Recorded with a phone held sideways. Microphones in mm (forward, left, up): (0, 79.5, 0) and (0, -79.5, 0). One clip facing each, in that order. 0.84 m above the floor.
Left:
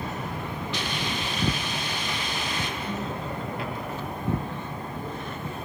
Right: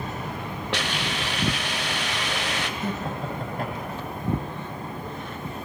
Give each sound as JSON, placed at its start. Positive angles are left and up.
{"t": 0.7, "sound": "a hiss", "side_deg": -85, "distance_m": 2.0}
{"t": 2.8, "sound": "laughter", "side_deg": -50, "distance_m": 5.5}